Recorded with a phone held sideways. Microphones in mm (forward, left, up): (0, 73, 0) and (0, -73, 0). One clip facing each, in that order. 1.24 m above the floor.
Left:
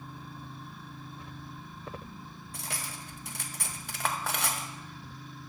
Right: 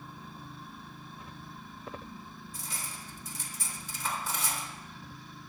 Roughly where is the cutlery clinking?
Left.